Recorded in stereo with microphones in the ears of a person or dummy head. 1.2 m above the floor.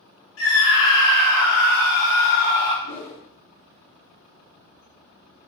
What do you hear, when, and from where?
0.4 s a scream: 65° left (ahead or behind), 1.1 m
2.8 s a whoosh: 65° left (ahead or behind), 1.2 m